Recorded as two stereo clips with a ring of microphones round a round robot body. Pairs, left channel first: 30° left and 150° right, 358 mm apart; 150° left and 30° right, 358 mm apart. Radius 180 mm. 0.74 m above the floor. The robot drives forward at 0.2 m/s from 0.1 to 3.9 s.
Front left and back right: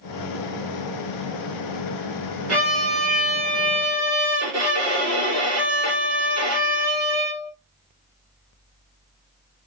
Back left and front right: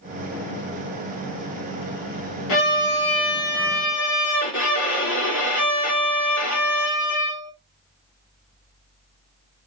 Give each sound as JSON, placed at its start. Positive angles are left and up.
{"t": 2.5, "sound": "a violin", "azimuth_deg": 165, "distance_m": 2.0}